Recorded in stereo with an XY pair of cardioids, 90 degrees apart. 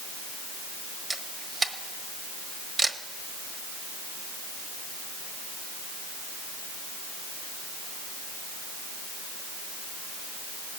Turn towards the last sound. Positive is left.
turn(degrees=-35)